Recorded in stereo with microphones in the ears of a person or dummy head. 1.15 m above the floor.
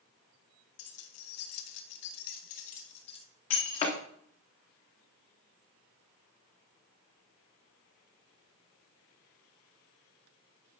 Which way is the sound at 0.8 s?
75° left (ahead or behind).